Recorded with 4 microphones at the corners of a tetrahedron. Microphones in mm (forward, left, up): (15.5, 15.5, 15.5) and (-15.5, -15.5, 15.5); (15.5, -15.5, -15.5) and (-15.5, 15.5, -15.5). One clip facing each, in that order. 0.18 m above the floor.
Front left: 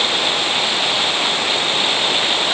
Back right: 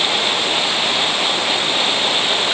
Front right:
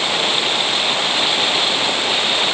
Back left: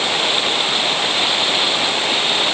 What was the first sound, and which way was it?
Only background noise.